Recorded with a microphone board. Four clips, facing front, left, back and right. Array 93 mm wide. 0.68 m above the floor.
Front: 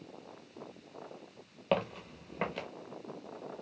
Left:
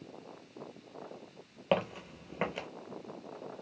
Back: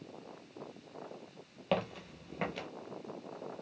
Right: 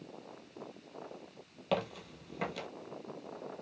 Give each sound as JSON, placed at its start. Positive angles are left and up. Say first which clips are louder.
{"t": 1.7, "sound": "footsteps", "louder": "left 3 dB, front 2 dB", "azimuth_deg": 70, "distance_m": 0.7}